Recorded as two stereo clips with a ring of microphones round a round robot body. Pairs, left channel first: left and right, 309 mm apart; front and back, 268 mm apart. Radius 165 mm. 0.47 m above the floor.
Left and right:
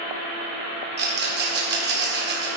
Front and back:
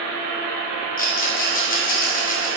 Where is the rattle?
45° right, 1.8 m.